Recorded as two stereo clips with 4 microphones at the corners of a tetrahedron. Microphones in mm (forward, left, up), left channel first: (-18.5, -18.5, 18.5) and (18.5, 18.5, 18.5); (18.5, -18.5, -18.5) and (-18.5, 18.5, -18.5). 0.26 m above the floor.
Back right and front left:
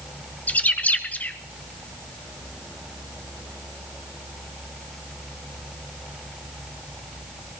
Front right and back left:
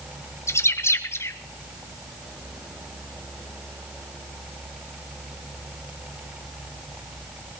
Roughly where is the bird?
Right.